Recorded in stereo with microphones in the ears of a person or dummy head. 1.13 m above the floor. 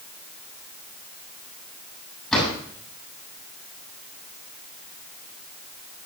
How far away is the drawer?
About 6.5 m.